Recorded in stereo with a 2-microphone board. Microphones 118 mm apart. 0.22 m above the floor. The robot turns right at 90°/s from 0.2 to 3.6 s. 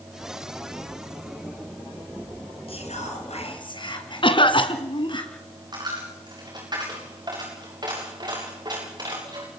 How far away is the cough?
About 2.5 m.